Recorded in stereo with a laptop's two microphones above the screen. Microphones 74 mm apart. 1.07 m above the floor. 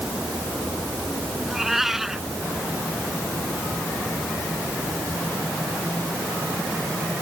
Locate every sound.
1.4 s a cat meowing: 5° right (ahead or behind)